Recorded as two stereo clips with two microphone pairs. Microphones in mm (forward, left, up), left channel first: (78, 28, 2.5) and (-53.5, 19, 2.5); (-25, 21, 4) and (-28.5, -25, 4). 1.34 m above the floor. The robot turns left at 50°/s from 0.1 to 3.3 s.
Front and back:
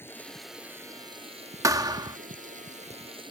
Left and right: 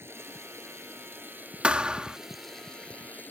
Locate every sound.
0.0 s running water: 70° right; by 3.3 s 130° left
1.6 s a thud: 135° right; by 2.2 s 160° right